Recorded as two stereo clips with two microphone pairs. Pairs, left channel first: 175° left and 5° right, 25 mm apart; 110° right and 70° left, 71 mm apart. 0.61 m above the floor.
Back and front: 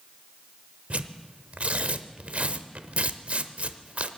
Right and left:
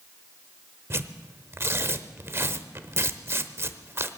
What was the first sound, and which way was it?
Tearing paper, 15° left.